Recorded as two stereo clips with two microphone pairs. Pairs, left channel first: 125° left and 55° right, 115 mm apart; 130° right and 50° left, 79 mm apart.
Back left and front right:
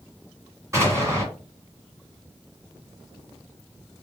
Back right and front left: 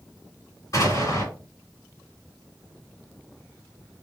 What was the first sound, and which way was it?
An explosion, 110° right.